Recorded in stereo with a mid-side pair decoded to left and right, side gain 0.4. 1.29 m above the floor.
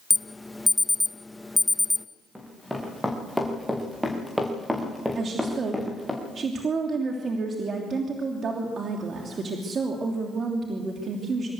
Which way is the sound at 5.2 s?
50° right.